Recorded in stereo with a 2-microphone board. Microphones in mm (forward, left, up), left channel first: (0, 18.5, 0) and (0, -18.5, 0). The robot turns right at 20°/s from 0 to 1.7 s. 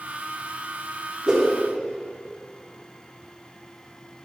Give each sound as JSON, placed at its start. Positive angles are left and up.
{"t": 1.3, "sound": "a whoosh", "side_deg": -20, "distance_m": 0.7}